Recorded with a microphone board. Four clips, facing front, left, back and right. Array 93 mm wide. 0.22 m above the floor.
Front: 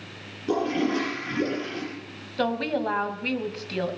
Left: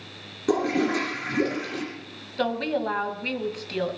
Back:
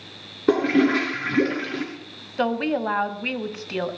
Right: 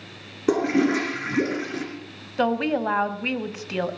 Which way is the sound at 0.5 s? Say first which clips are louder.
Right 3 dB, back 6 dB; 155° right.